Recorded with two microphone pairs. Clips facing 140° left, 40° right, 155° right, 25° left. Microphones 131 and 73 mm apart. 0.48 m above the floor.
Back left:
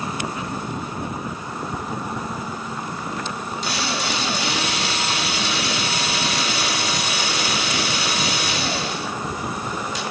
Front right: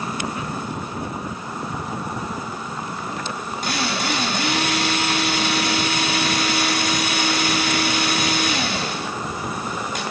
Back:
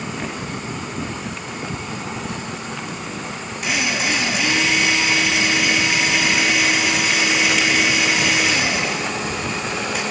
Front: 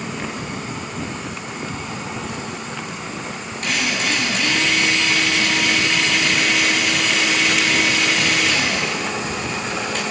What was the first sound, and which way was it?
A drill, 75° right.